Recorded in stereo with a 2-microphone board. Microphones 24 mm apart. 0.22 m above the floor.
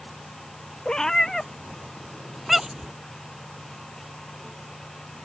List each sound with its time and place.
0.8 s a cat meowing: 30° left (ahead or behind); by 2.9 s 30° right (ahead or behind)